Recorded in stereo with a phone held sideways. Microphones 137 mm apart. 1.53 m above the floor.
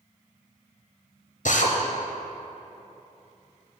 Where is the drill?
70° left (ahead or behind), 0.8 m.